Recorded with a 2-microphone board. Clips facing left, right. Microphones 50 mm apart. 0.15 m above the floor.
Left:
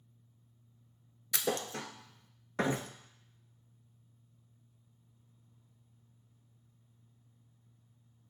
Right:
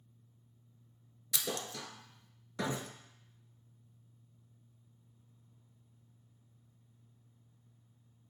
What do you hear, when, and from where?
1.3 s a thud: 40° left (ahead or behind), 0.6 m